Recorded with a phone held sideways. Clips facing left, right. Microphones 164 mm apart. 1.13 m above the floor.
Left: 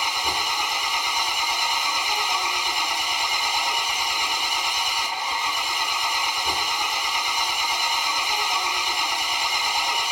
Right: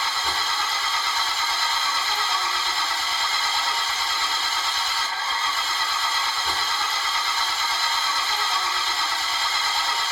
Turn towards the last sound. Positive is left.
turn(degrees=15)  # may be behind; listen again after turning